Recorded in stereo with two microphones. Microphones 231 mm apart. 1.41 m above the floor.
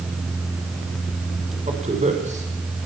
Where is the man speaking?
30° right (ahead or behind), 5.5 m.